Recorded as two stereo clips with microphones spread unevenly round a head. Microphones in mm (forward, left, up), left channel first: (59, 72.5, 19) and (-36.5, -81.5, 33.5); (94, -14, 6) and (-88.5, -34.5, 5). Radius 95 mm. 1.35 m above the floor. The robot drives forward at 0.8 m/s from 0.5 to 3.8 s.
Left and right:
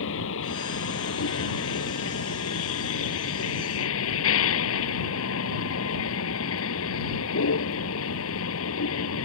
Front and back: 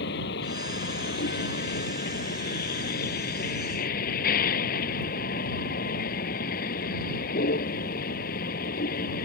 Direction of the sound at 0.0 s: 45° left.